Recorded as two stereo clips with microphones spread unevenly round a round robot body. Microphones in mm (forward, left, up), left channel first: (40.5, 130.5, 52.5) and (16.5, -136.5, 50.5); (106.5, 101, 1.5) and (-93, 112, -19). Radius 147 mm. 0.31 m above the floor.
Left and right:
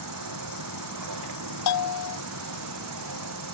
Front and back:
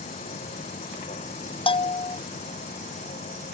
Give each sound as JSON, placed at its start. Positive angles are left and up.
{"t": 0.0, "sound": "an insect", "azimuth_deg": -70}
{"t": 1.7, "sound": "a bell", "azimuth_deg": 60}